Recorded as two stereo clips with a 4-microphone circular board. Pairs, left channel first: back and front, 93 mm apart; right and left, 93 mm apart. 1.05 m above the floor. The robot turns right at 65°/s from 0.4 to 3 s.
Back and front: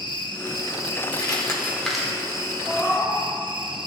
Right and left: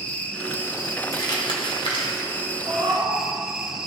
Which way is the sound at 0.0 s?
160° right.